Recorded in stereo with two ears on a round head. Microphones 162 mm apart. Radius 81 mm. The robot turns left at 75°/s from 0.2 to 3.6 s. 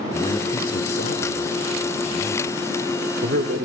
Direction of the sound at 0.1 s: 155° left.